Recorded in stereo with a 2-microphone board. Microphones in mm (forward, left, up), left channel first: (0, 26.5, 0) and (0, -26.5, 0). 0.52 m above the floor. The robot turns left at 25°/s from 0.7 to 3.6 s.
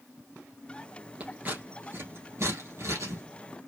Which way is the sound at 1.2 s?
25° right (ahead or behind).